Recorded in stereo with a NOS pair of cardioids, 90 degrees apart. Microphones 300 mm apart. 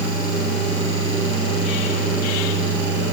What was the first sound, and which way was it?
Only background noise.